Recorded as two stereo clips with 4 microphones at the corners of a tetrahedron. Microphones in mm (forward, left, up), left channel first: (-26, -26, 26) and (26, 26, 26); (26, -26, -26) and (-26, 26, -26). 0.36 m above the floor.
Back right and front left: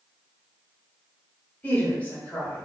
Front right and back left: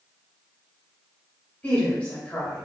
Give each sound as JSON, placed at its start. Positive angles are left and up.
{"t": 1.6, "sound": "a woman speaking", "azimuth_deg": -90, "distance_m": 1.4}